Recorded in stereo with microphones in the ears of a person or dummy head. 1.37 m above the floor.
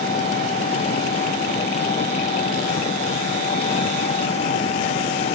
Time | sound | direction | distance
0.0 | an engine running | 30° left (ahead or behind) | ?